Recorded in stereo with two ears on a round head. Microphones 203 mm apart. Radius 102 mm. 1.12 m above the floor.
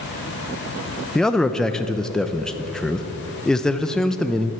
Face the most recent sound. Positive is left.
turn(degrees=5)  # may be behind; listen again after turning